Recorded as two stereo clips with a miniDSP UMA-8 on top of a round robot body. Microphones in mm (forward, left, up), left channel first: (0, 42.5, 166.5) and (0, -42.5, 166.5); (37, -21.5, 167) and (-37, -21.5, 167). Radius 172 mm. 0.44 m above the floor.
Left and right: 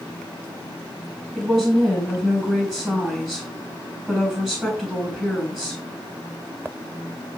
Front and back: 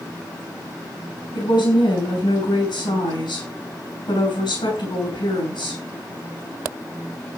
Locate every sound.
1.4 s a woman speaking: 5° right, 6.5 m